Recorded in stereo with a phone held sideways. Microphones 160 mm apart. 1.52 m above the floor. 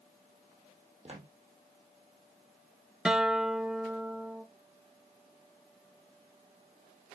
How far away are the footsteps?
About 2 m.